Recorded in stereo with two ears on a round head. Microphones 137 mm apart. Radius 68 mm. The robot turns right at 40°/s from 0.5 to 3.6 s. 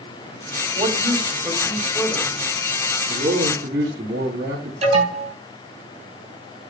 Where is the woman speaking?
50° right, 3 m; by 2.3 s 10° left, 3 m.